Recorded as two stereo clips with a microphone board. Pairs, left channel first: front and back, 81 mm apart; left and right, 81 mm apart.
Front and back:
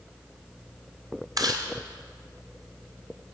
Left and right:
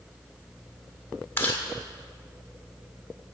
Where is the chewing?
145° left, 1.9 m.